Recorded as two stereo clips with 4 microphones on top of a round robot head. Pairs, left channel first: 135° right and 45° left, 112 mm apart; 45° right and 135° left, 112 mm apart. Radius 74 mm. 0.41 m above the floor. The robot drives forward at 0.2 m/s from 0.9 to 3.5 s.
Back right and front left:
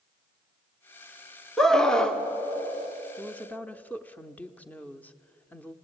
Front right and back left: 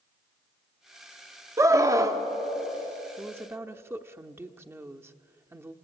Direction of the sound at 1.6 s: 145° left.